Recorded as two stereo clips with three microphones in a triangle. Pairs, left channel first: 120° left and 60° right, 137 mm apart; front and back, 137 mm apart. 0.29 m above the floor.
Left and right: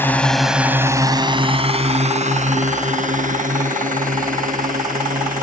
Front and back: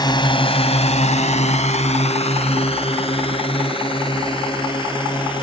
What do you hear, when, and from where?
0.0 s a drone: 50° left; by 5.4 s 55° right